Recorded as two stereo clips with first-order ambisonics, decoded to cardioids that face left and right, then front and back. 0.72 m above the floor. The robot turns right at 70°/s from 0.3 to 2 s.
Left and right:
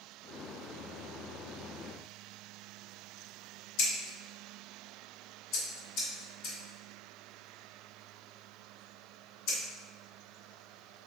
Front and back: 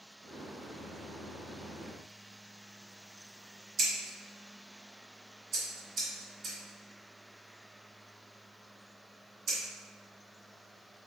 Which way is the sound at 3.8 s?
120° left.